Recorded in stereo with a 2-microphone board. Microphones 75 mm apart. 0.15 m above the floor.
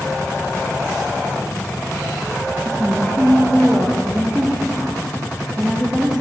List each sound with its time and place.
2.6 s a woman speaking: 5° right (ahead or behind), 4.5 m